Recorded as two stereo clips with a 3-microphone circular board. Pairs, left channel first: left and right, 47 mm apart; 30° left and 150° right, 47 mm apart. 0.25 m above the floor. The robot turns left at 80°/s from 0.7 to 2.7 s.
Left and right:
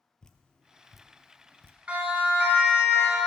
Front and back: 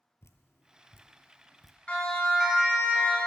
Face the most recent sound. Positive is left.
turn(degrees=-105)